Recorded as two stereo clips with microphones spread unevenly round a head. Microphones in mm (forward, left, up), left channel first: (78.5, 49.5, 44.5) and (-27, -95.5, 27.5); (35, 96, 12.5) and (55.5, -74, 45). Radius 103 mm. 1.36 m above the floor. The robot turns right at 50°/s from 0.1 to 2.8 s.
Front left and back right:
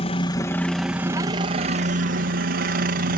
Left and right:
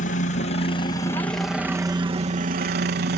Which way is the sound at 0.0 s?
110° left.